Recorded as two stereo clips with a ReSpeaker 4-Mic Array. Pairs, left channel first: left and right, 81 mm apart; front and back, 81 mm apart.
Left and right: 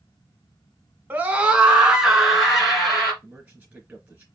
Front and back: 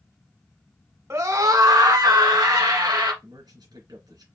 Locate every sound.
1.1 s a scream: 150° right, 1.4 m; by 3.1 s straight behind, 3 m
3.2 s a man speaking: 165° right, 4 m